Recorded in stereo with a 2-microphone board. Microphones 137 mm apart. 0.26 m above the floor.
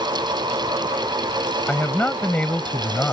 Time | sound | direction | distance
1.7 | a man speaking | 10° left (ahead or behind) | ?